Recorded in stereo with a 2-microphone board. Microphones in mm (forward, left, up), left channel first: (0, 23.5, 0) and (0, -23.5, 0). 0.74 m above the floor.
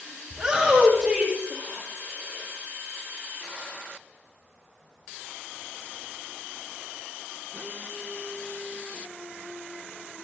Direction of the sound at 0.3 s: 15° right (ahead or behind).